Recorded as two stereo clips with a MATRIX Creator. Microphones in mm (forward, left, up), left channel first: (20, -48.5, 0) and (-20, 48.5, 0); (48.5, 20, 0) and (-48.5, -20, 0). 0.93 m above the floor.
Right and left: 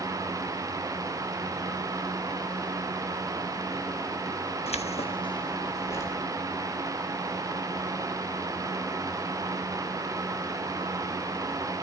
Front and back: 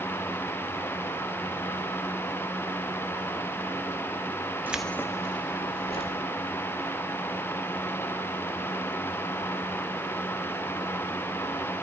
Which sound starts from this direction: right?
Keys jangling, at 4.7 s.